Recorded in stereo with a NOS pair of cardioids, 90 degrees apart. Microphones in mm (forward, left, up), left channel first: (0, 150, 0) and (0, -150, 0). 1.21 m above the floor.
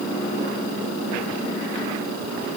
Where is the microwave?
No microwave in this recording.